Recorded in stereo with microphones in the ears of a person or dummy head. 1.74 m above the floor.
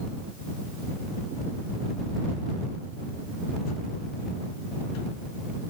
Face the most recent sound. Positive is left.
No sound to turn to.